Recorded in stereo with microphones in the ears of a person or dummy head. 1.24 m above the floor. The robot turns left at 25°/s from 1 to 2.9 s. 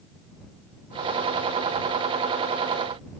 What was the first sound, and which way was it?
Only background noise.